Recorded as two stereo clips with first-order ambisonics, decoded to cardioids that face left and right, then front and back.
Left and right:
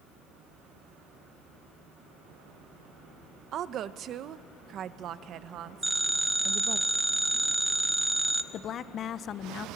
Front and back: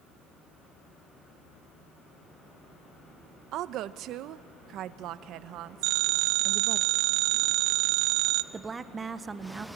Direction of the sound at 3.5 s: 140° right.